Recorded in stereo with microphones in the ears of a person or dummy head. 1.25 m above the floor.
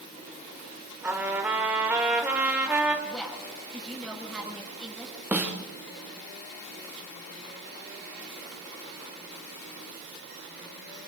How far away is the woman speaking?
About 7.5 m.